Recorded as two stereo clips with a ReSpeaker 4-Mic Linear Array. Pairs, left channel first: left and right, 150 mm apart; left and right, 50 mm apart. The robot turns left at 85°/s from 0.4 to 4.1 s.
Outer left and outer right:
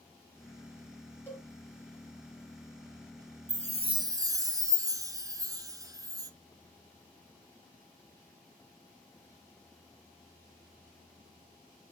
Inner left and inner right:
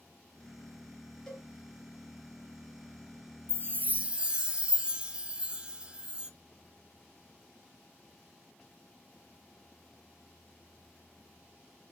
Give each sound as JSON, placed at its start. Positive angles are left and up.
{"t": 1.3, "sound": "a cowbell", "side_deg": 15, "distance_m": 2.0}
{"t": 3.5, "sound": "a chime", "azimuth_deg": -100, "distance_m": 0.7}